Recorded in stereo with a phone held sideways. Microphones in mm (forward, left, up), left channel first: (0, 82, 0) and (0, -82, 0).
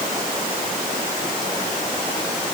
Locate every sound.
Only background noise.